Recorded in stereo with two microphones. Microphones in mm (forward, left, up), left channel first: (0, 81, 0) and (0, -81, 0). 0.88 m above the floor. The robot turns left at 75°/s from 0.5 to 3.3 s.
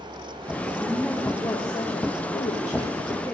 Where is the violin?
I don't hear a violin.